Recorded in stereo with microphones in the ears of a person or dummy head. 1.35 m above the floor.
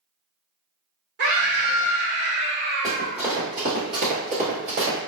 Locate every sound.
1.2 s a scream: 60° right (ahead or behind), 1.9 m
2.8 s running footsteps: centre (ahead or behind), 1.7 m; by 5.0 s 50° right (ahead or behind), 2 m